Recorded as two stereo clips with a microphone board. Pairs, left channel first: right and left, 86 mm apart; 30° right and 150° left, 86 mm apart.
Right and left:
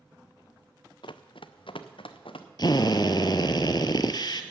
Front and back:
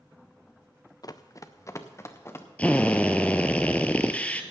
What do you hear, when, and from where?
1.0 s running footsteps: 75° right, 0.7 m; by 2.5 s 90° right, 1.8 m
2.6 s a drill: 100° right, 0.9 m